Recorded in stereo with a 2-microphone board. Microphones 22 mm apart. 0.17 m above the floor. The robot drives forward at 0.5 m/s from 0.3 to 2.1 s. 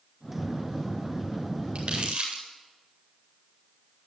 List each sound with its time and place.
1.8 s crumpling: 40° right (ahead or behind), 8.5 m